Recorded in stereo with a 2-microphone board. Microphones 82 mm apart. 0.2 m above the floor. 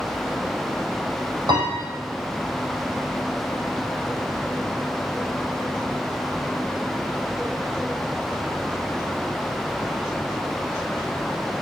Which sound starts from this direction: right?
A piano, at 1.5 s.